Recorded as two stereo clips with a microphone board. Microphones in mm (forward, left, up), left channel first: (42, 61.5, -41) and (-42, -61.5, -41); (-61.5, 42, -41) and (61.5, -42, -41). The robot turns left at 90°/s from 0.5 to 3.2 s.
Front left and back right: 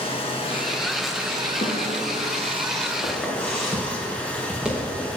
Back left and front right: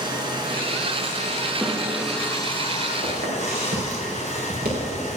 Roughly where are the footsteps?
Ahead.